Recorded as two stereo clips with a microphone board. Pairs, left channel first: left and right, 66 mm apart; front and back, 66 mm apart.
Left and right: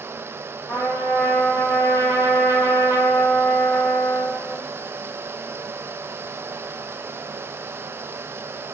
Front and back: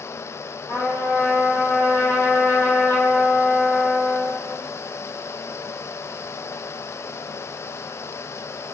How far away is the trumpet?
About 1.6 m.